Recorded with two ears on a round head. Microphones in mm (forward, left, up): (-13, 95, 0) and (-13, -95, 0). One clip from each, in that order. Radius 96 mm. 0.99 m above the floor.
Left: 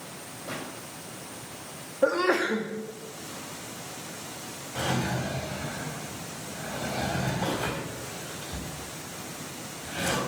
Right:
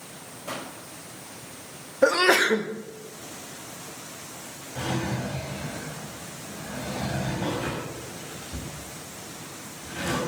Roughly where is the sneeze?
Right.